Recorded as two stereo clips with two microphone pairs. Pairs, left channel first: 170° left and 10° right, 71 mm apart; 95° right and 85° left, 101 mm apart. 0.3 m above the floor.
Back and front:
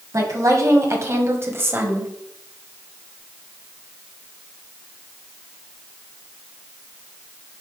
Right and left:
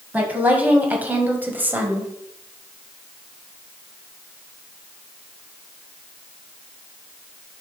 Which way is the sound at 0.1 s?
10° left.